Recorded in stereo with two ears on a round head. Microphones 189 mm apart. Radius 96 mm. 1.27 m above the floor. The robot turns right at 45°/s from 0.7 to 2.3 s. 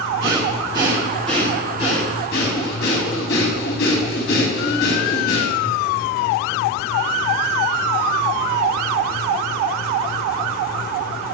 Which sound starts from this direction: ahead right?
Breathing, at 0.2 s.